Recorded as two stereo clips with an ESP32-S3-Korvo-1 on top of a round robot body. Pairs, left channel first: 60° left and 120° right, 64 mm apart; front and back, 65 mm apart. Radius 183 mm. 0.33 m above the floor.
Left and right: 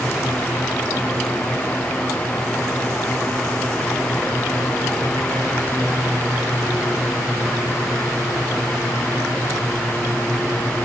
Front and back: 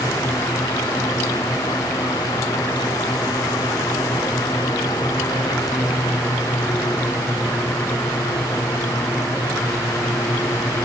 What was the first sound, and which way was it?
Only background noise.